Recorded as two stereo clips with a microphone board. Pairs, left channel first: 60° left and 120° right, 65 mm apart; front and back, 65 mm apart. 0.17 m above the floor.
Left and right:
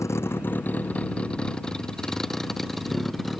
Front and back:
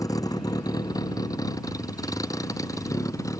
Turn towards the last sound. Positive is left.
turn(degrees=-30)